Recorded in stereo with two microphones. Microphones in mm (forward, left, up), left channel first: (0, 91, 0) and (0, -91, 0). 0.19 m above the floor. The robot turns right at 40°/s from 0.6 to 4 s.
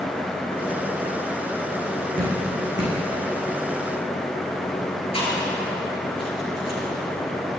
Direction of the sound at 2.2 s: 45° right (ahead or behind).